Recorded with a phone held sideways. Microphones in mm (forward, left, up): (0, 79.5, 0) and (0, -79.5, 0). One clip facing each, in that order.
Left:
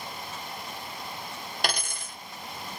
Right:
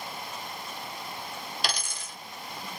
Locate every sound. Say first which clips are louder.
1.6 s a dropped coin: left 6 dB; 55° left (ahead or behind), 1.0 m